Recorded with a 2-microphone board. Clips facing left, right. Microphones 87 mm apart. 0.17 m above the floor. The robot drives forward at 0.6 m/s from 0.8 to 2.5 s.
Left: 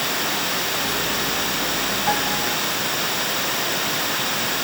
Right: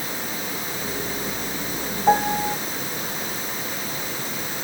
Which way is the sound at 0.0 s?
85° left.